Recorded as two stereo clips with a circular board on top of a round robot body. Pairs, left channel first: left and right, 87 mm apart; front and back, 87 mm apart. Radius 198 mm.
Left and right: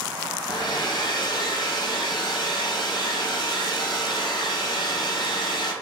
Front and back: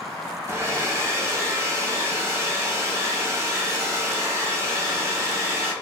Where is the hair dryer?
125° left, 0.9 m.